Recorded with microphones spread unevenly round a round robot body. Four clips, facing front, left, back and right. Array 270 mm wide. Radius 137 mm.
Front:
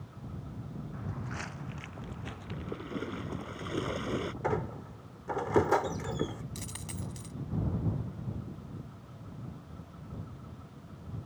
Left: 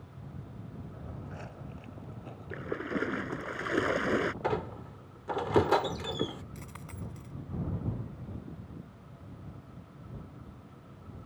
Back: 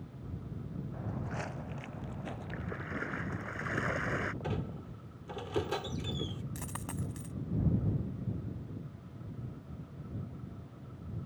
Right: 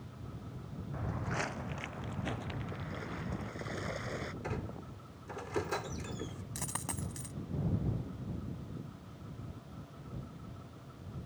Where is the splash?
75° left.